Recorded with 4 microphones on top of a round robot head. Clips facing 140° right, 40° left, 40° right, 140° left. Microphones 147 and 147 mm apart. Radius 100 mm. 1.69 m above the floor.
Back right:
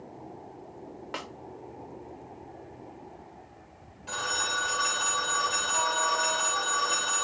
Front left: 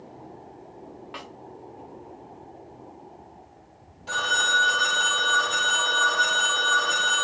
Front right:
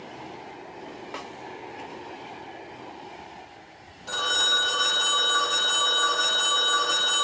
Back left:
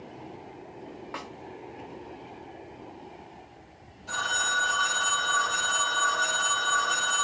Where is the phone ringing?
15° right, 2 m.